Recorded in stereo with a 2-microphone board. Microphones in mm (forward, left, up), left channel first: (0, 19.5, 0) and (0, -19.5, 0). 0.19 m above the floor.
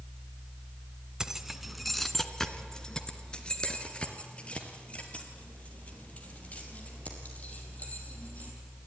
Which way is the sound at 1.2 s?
15° right (ahead or behind).